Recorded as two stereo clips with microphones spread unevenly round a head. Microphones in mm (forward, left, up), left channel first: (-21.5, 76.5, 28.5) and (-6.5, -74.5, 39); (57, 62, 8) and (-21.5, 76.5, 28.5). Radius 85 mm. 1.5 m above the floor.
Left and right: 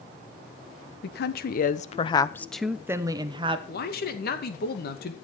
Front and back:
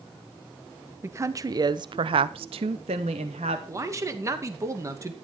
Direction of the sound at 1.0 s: 110° left.